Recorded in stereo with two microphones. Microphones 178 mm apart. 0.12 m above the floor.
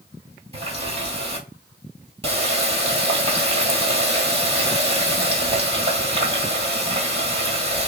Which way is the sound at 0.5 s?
35° right (ahead or behind).